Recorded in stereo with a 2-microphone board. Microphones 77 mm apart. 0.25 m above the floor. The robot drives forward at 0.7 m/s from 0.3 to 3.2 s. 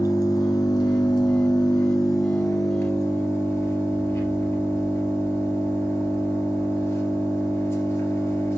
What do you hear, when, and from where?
0.0 s an engine running: 55° left (ahead or behind), 1.1 m; by 8.6 s 30° left (ahead or behind), 1.7 m